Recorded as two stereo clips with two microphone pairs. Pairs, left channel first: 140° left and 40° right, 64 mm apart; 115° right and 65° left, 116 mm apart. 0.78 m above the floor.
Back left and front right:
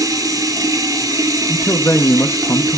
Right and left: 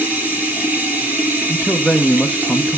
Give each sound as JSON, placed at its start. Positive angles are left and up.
{"t": 0.0, "sound": "running water", "azimuth_deg": -10, "distance_m": 6.0}
{"t": 1.5, "sound": "a man speaking", "azimuth_deg": 165, "distance_m": 0.7}